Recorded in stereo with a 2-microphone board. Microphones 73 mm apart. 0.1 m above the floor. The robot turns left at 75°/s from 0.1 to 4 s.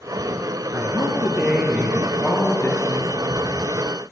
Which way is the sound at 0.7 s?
105° right.